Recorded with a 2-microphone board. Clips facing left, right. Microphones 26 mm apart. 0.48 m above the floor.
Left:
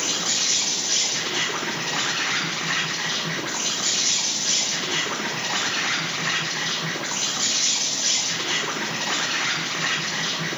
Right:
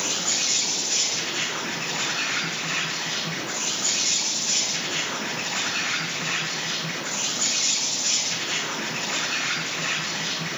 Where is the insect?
60° left (ahead or behind), 4 m.